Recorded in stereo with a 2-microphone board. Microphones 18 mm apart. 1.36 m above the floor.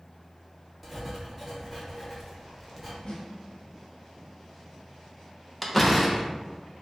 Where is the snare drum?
45° left (ahead or behind), 1.4 m.